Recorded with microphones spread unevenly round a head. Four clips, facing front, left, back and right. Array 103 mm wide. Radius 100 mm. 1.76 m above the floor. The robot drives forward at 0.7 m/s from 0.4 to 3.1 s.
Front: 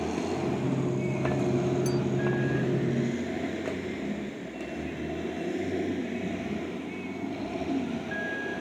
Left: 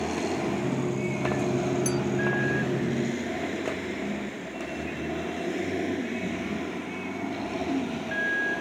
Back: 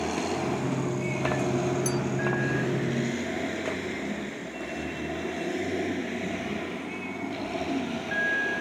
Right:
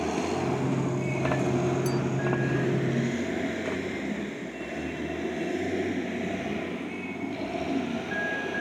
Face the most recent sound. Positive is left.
turn(degrees=135)